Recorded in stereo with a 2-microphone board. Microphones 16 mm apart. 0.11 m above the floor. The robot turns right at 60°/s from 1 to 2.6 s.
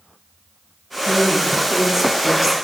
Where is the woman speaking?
25° right (ahead or behind), 1.6 m; by 2.5 s 15° right (ahead or behind), 1.6 m.